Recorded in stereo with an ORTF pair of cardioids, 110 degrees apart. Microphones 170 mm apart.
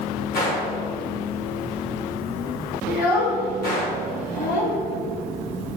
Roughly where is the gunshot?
Ahead left.